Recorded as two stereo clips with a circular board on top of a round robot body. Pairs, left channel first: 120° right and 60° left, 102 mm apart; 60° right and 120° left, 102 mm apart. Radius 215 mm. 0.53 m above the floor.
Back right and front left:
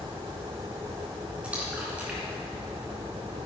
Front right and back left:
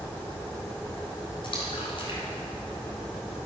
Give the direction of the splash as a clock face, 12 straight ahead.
1 o'clock.